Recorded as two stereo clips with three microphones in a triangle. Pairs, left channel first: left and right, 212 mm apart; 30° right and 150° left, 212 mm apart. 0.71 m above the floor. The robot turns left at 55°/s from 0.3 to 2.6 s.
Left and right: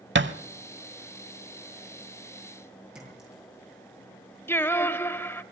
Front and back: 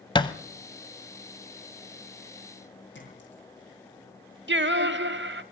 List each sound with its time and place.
0.1 s a thud: 95° right, 0.9 m
3.0 s a clink: 5° right, 9 m
4.5 s singing: 165° left, 0.8 m